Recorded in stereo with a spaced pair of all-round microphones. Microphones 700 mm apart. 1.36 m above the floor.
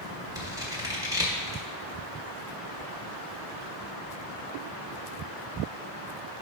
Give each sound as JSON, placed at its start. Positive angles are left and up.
{"t": 0.3, "sound": "scissors", "side_deg": -5, "distance_m": 1.2}